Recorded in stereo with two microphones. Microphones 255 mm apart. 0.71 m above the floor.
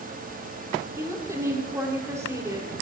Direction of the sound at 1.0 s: 10° right (ahead or behind).